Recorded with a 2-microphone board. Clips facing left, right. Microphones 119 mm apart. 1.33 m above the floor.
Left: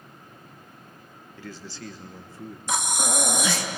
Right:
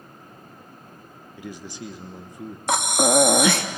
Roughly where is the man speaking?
Centre.